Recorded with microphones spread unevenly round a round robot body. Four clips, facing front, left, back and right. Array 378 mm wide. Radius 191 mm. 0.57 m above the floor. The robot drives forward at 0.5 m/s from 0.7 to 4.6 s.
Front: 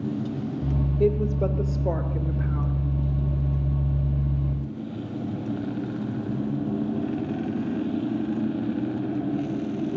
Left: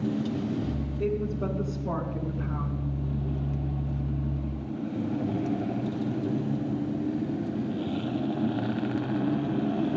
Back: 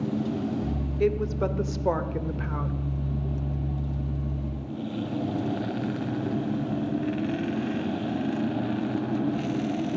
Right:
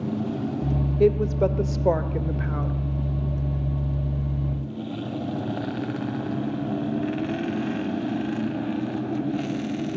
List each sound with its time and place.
1.0 s a woman speaking: 100° right, 1.5 m; by 2.8 s 130° right, 1.9 m